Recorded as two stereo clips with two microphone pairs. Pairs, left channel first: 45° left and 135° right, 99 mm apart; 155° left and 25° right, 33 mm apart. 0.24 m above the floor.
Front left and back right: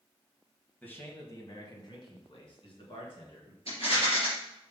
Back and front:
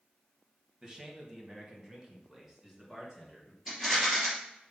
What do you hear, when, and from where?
0.8 s a man speaking: 5° right, 1.2 m; by 3.6 s 55° left, 3 m
3.7 s a rattle: 55° left, 3.5 m